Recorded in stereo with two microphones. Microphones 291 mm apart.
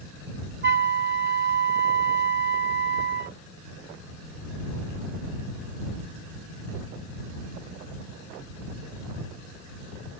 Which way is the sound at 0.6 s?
35° right (ahead or behind).